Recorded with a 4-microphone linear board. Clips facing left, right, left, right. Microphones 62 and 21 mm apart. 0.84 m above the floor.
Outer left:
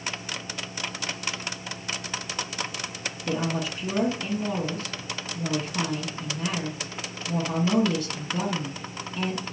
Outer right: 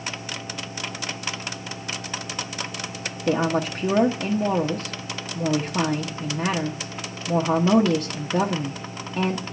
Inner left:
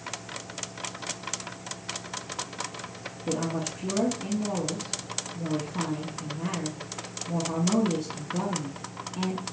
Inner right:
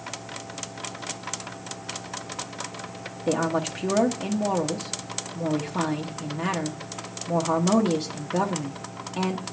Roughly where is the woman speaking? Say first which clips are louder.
Outer right 6 dB, inner right 5 dB; right.